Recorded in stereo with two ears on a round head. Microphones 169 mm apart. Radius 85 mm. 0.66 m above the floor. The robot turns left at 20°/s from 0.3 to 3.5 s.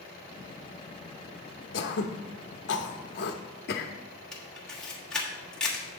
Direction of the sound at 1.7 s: 60° left (ahead or behind).